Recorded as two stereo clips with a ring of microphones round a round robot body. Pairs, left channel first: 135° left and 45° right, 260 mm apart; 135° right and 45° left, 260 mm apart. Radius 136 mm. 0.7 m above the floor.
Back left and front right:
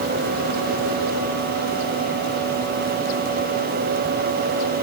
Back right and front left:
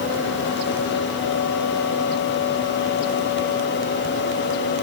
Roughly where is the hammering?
No hammering in this recording.